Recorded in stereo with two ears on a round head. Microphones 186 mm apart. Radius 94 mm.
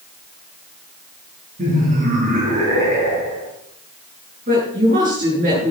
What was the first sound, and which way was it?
Laughter, 40° right (ahead or behind).